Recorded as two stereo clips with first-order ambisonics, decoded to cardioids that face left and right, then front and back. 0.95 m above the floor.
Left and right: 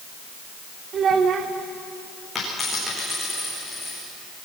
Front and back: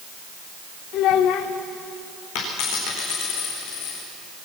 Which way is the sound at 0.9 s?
35° right.